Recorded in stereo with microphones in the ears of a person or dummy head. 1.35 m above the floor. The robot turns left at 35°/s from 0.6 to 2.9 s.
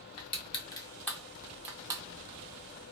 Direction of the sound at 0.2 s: 20° left (ahead or behind).